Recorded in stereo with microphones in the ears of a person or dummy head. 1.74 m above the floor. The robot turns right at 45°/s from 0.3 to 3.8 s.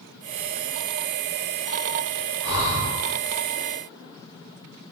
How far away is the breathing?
About 1.4 m.